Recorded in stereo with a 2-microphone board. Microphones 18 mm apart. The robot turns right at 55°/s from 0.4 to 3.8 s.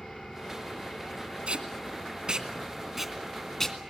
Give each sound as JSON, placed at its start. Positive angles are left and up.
{"t": 0.0, "sound": "an engine running", "azimuth_deg": 15, "distance_m": 8.5}
{"t": 1.5, "sound": "tape being pulled", "side_deg": -70, "distance_m": 2.0}